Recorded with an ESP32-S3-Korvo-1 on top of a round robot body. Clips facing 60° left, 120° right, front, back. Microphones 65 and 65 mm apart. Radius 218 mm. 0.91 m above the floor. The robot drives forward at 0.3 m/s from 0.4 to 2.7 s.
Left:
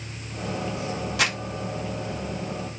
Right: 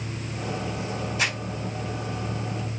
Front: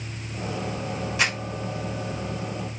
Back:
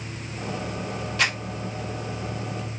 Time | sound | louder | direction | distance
1.2 | crumpling | left 2 dB, back 1 dB | 75° left | 0.7 m